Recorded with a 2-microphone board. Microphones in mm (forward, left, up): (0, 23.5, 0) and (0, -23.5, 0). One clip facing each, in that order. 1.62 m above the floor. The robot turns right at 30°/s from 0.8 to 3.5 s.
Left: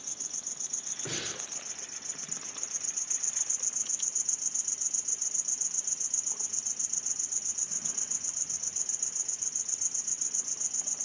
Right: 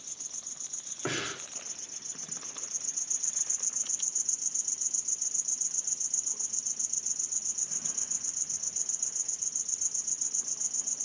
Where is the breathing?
65° right (ahead or behind), 3.5 m; by 1.4 s 75° right (ahead or behind), 3.5 m.